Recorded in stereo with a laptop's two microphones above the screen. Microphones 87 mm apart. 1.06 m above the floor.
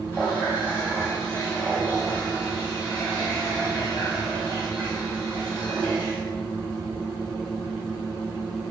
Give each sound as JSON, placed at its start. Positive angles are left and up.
{"t": 0.1, "sound": "a running tap", "side_deg": -45, "distance_m": 1.9}